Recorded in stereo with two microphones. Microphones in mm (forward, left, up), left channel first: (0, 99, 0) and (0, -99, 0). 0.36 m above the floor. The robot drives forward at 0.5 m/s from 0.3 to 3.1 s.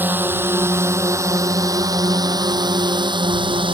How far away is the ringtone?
I don't hear a ringtone.